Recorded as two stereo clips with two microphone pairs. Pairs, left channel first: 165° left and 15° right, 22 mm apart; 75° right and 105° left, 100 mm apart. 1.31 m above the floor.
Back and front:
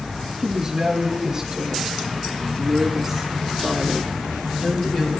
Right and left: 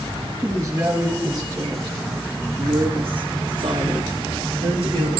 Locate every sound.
0.4 s a woman speaking: 40° left, 2 m; by 5.1 s 110° left, 1.9 m